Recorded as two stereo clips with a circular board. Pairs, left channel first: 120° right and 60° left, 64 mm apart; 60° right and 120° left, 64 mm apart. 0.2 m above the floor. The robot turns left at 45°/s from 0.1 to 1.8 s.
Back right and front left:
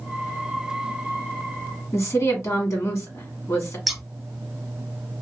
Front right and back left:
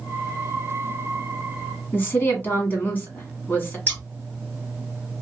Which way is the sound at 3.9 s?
30° right.